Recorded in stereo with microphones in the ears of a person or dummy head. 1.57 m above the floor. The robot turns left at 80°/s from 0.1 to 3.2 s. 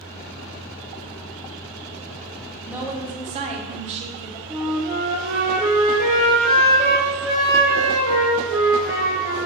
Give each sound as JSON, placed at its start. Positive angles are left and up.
{"t": 2.7, "sound": "a woman speaking", "azimuth_deg": -5, "distance_m": 0.6}
{"t": 4.5, "sound": "a flute", "side_deg": 5, "distance_m": 1.5}